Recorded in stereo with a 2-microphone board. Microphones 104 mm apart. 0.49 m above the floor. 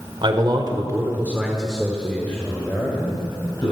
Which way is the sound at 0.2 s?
55° right (ahead or behind).